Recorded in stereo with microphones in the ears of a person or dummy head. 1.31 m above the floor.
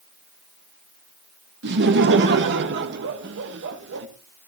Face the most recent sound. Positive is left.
turn(degrees=-65)  # may be behind; listen again after turning